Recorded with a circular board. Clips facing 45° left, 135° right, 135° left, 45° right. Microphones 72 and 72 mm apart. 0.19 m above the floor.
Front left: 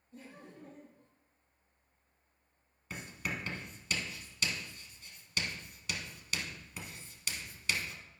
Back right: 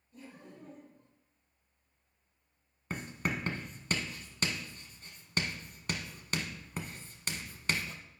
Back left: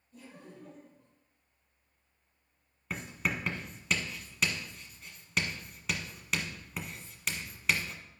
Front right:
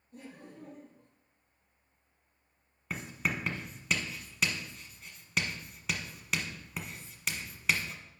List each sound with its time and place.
0.1 s laughter: 10° right, 3.5 m
2.9 s writing: 135° right, 1.1 m